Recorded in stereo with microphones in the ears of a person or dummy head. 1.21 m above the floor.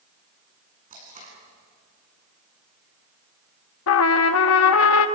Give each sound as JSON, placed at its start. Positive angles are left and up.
{"t": 0.9, "sound": "tape being pulled", "side_deg": -30, "distance_m": 8.5}
{"t": 3.9, "sound": "a trumpet", "side_deg": 75, "distance_m": 1.3}